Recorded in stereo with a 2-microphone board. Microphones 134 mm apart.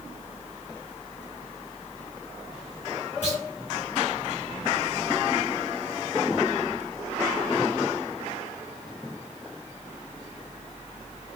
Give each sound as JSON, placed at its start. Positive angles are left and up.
{"t": 3.2, "sound": "a clunk", "side_deg": 55, "distance_m": 2.0}